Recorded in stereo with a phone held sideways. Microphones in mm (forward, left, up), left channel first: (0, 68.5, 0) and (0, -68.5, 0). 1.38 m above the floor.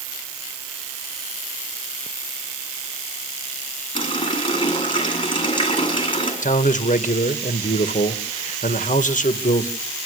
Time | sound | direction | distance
4.0 | a running tap | 40° left (ahead or behind) | 8 m
6.4 | a man speaking | 75° left (ahead or behind) | 1.8 m